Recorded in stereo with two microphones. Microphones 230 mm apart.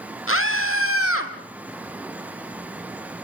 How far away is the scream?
About 5 m.